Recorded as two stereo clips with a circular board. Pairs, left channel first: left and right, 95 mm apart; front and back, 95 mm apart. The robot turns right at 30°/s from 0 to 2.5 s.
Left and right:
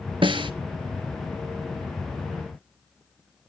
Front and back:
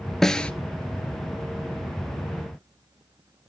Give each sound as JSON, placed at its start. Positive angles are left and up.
{"t": 0.2, "sound": "a snare drum", "azimuth_deg": -85, "distance_m": 0.5}